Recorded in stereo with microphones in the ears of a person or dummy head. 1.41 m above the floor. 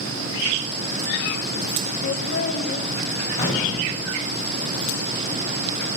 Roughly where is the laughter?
Left.